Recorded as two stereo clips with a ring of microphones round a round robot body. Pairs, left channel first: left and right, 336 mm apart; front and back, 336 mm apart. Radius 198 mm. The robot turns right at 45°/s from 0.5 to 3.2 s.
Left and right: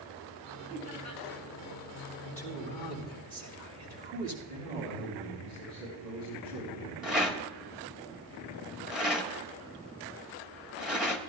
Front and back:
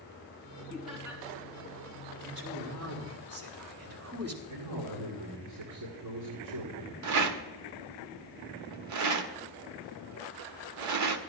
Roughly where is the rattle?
Behind.